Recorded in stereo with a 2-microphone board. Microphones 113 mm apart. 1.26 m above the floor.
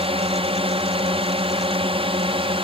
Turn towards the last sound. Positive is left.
turn(degrees=-50)  # may be behind; listen again after turning